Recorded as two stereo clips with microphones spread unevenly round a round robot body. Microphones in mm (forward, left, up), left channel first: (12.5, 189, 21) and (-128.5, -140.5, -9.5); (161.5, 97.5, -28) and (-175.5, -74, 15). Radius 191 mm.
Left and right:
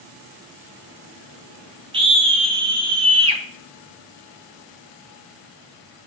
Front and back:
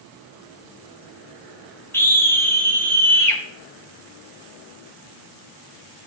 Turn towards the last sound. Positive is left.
turn(degrees=-50)